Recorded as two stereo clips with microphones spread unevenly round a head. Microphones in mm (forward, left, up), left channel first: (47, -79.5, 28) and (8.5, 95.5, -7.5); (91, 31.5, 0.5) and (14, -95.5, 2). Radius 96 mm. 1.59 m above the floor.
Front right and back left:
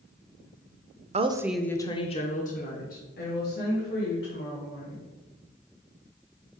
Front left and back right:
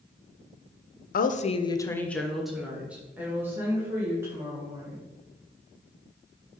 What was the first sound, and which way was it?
A woman speaking, 45° left.